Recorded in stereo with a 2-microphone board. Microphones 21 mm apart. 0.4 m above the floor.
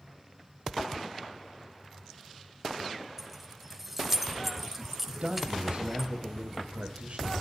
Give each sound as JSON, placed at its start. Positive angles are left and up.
{"t": 0.8, "sound": "a thud", "side_deg": -5, "distance_m": 8.5}
{"t": 3.2, "sound": "keys jangling", "side_deg": -10, "distance_m": 1.6}
{"t": 5.1, "sound": "a man speaking", "side_deg": -60, "distance_m": 2.0}